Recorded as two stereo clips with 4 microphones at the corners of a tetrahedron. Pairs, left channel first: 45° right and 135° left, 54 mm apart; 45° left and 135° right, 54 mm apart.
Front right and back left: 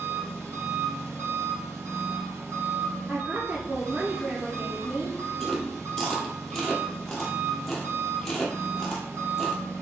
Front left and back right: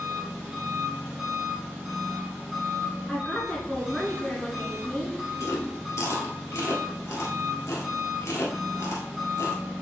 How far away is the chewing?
About 1.3 m.